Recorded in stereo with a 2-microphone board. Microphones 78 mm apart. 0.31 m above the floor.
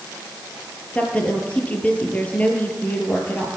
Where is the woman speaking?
20° left (ahead or behind), 6 m.